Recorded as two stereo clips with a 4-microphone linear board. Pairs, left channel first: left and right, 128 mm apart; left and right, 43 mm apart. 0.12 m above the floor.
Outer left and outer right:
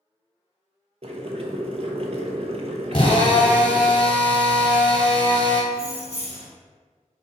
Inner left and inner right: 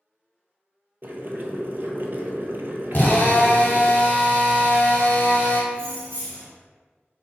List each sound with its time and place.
1.0 s boiling: 55° right (ahead or behind), 0.6 m
2.9 s a drill: 45° left (ahead or behind), 1.3 m
5.7 s keys jangling: 55° right (ahead or behind), 1.7 m